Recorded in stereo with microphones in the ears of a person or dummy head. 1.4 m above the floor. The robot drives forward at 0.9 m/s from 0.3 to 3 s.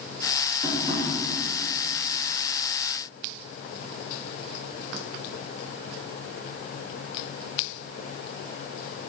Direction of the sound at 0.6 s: 40° right (ahead or behind).